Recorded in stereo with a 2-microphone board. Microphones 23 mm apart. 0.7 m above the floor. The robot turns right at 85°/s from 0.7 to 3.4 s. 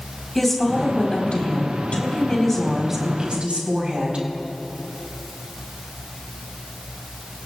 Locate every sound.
0.3 s a woman speaking: 15° left, 4.5 m; by 4.3 s 115° right, 4.5 m